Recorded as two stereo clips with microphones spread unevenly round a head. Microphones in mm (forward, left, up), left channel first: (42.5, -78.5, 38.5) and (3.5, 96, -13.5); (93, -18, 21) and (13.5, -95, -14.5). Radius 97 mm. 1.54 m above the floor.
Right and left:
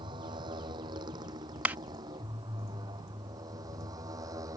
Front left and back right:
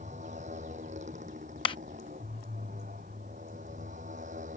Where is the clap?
15° left.